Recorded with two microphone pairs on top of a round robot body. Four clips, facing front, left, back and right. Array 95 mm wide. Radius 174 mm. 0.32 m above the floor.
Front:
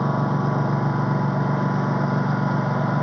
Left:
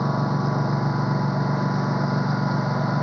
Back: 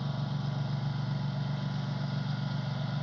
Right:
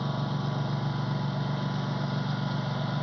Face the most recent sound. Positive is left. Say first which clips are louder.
# left 8 dB, front 14 dB
turn(degrees=30)